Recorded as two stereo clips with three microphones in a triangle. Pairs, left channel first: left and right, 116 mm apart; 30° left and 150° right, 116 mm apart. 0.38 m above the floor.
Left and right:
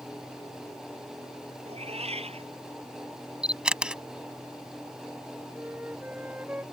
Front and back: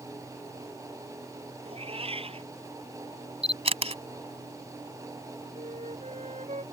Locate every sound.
1.6 s a cat meowing: 115° right
3.4 s a camera shutter: 170° right
5.5 s a flute: 165° right